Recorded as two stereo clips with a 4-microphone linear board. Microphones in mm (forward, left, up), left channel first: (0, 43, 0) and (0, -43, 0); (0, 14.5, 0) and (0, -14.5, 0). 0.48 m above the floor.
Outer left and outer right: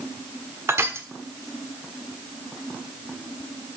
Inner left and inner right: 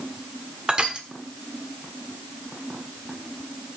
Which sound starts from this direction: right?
Crushing, at 0.7 s.